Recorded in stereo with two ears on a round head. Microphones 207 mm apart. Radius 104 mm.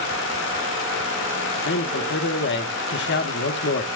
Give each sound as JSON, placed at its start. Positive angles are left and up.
{"t": 1.6, "sound": "a man speaking", "side_deg": 50, "distance_m": 1.5}